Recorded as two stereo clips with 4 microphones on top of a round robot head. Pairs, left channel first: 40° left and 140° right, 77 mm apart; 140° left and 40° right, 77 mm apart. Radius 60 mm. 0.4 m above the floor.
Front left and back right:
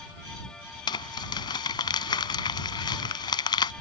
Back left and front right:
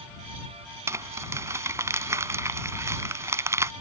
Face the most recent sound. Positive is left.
turn(degrees=15)